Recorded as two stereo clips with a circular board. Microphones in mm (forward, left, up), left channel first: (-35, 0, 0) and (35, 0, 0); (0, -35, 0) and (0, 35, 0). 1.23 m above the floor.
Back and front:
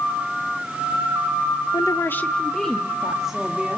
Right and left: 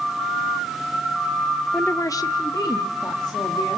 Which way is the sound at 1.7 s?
160° right.